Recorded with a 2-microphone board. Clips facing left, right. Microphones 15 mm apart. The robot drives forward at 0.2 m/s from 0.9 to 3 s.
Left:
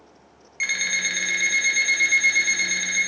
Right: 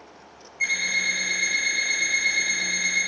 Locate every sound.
0.6 s an alarm clock: 50° left (ahead or behind), 0.6 m; by 3.0 s 35° left (ahead or behind), 0.8 m